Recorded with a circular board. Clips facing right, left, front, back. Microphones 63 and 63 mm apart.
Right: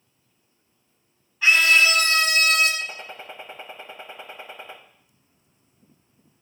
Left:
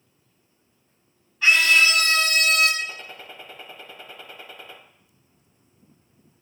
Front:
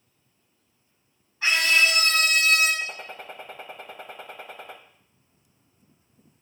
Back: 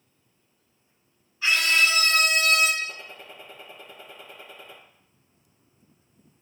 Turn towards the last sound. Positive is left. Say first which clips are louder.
# even, front 2 dB
turn(degrees=-25)